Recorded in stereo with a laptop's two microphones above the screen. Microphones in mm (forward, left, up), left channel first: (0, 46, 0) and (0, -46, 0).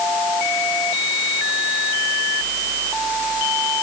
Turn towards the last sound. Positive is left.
No sound to turn to.